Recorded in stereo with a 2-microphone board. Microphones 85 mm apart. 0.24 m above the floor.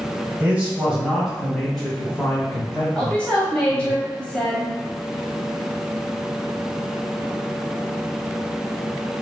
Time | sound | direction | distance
0.4 | a man speaking | 20° right (ahead or behind) | 1.3 m
3.0 | a woman speaking | 15° left (ahead or behind) | 1.0 m